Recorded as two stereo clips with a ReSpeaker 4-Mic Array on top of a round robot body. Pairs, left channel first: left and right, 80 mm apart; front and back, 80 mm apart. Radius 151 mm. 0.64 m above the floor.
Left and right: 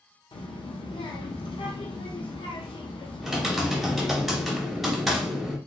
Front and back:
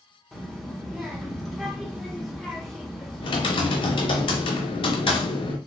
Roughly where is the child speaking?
Left.